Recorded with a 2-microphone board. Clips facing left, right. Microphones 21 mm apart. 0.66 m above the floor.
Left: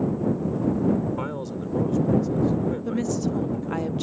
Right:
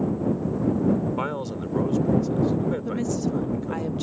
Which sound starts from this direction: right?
A man speaking, at 1.2 s.